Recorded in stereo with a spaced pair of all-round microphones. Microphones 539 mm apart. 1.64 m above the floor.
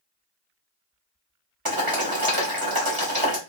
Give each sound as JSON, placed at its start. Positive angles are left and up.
{"t": 1.6, "sound": "boiling", "side_deg": -40, "distance_m": 1.2}